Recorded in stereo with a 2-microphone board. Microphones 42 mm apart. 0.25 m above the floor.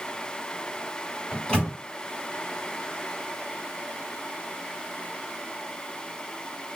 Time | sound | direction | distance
1.3 | a microwave | 20° left (ahead or behind) | 1.0 m